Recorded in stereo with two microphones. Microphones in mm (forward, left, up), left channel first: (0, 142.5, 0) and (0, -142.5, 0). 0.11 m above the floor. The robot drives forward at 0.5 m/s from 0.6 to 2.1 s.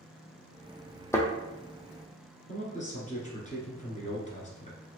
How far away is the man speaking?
About 1.7 m.